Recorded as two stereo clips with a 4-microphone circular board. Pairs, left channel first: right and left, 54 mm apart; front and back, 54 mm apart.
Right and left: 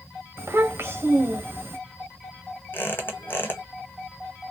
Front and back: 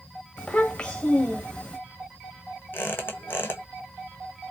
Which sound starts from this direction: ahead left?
A child speaking, at 0.4 s.